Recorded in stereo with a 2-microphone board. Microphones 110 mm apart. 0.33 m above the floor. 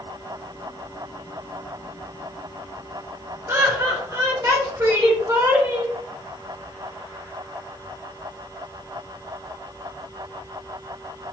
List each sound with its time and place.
3.5 s laughter: 25° right (ahead or behind), 1.3 m; by 5.9 s 30° right (ahead or behind), 2 m